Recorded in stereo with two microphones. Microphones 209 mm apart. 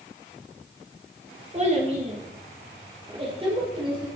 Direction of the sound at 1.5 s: 30° right (ahead or behind).